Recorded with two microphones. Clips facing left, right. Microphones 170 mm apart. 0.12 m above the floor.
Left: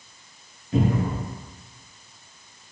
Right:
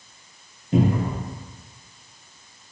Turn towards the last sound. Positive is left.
turn(degrees=-35)  # may be behind; listen again after turning